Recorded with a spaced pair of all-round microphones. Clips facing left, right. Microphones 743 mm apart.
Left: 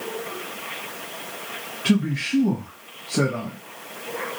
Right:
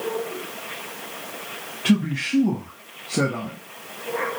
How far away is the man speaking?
About 0.6 m.